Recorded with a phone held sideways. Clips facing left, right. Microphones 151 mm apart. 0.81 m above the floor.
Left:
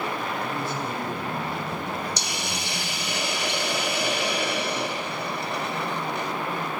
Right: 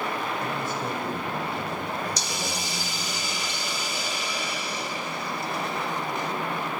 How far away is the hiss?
About 0.5 m.